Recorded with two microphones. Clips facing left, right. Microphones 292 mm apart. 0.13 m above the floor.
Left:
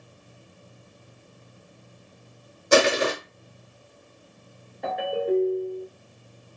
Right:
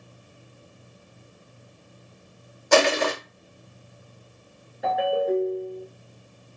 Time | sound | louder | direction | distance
2.7 | crushing | left 1 dB | 25° left (ahead or behind) | 1.1 m
4.8 | a ringtone | right 2 dB | 5° right (ahead or behind) | 1.3 m